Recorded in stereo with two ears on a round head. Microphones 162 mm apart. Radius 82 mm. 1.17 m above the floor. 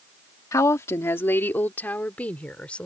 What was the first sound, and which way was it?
A woman speaking, 20° left (ahead or behind).